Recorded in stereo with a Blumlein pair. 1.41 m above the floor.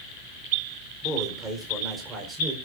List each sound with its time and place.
1.0 s a man speaking: 15° right, 4 m; by 2.5 s 20° right, 4.5 m